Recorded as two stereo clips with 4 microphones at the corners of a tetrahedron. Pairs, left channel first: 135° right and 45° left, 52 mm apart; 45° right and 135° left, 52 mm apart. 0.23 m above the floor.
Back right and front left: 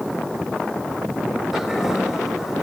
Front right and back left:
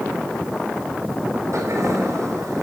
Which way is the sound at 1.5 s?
125° left.